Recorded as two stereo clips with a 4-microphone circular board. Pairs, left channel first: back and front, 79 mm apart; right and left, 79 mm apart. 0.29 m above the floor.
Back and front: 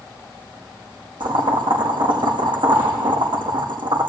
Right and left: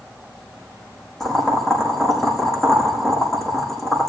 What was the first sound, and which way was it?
Boiling, 5° right.